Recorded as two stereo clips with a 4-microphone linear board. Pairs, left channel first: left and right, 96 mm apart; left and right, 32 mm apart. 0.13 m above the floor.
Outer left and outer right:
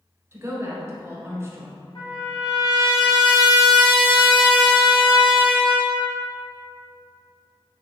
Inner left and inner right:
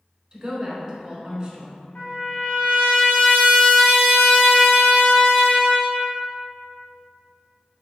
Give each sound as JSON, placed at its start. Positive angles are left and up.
{"t": 0.3, "sound": "a woman speaking", "side_deg": -25, "distance_m": 1.1}
{"t": 1.9, "sound": "a trumpet", "side_deg": 65, "distance_m": 1.8}